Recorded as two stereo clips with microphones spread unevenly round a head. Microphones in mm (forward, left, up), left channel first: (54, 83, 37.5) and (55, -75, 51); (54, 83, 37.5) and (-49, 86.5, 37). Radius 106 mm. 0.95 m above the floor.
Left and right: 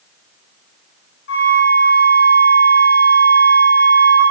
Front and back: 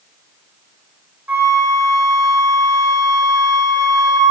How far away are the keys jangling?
I don't hear keys jangling.